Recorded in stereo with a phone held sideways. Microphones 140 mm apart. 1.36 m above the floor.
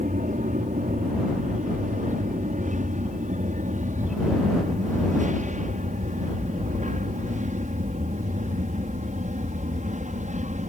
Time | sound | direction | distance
0.0 | an aircraft | 60° right (ahead or behind) | ?